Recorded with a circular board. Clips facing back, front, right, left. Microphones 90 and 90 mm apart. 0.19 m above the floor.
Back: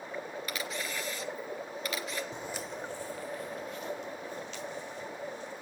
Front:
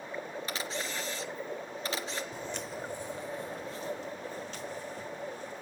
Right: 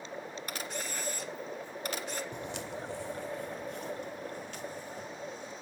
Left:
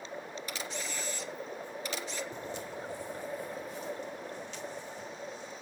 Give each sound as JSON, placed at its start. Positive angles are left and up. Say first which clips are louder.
{"t": 0.5, "sound": "a camera shutter", "louder": "even, right 1 dB", "azimuth_deg": -55, "distance_m": 2.0}
{"t": 2.3, "sound": "footsteps", "louder": "even, right 1 dB", "azimuth_deg": -115, "distance_m": 0.5}